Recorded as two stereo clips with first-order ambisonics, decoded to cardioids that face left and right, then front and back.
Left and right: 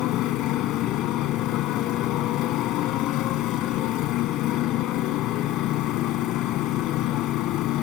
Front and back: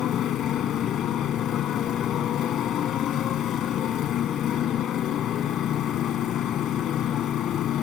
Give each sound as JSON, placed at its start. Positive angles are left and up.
{"t": 0.0, "sound": "a motorcycle", "azimuth_deg": 50}